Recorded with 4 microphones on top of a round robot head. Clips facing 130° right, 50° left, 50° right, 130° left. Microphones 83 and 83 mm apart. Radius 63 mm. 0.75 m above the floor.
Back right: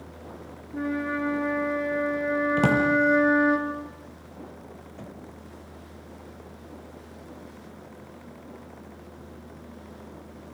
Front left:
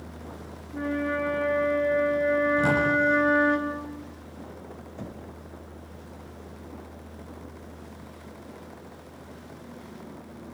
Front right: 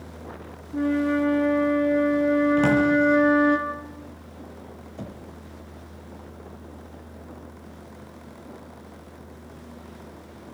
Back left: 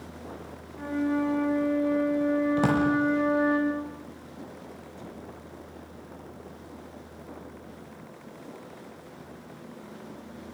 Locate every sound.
0.7 s a flute: 55° right, 5.5 m
2.6 s a drawer: 150° right, 7 m
5.0 s knocking: 25° right, 2.5 m